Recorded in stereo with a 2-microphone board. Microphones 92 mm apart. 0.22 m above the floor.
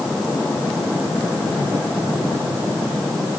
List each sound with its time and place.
Only background noise.